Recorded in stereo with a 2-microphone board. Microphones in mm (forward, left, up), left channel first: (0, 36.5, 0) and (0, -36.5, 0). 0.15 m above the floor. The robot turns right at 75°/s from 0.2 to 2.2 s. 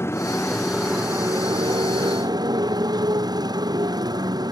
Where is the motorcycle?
145° left; by 4.5 s 65° right.